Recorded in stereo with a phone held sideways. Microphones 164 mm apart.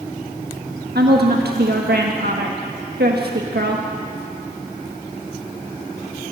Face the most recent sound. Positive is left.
turn(degrees=-85)